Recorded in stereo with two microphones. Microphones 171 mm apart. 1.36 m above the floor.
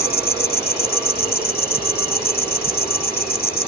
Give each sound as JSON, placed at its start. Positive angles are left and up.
{"t": 0.0, "sound": "an insect", "side_deg": 65}